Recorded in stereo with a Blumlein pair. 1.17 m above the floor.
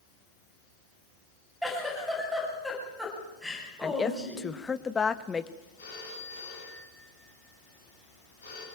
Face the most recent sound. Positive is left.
turn(degrees=65)